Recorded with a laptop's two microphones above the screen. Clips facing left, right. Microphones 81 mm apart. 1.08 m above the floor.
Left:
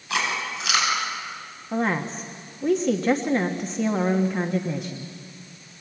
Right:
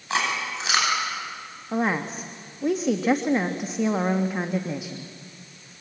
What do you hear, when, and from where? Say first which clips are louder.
0.1 s chewing: right 1 dB; 25° right (ahead or behind), 9.5 m
1.7 s a woman speaking: even; 5° right (ahead or behind), 1.3 m